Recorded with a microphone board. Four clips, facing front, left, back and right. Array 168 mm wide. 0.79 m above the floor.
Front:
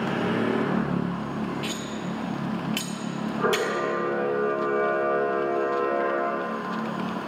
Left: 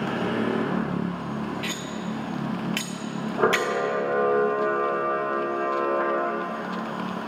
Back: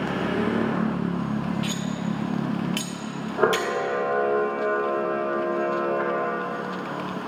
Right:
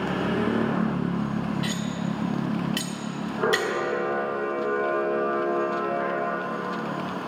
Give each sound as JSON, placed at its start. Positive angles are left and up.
{"t": 1.6, "sound": "cutlery clinking", "azimuth_deg": 95, "distance_m": 0.9}
{"t": 3.4, "sound": "a camera shutter", "azimuth_deg": 155, "distance_m": 2.0}